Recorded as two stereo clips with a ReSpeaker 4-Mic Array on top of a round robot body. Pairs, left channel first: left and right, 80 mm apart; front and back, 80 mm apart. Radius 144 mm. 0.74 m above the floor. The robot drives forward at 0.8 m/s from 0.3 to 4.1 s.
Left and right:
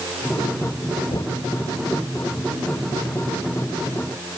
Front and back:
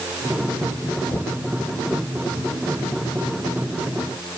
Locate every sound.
1.1 s knocking: 60° left